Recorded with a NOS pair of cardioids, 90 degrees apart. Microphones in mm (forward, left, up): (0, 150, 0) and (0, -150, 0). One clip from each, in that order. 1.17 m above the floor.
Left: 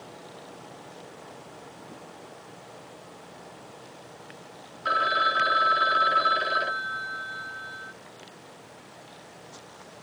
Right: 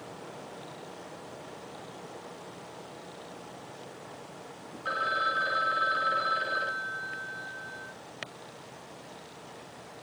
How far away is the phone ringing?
About 1.0 m.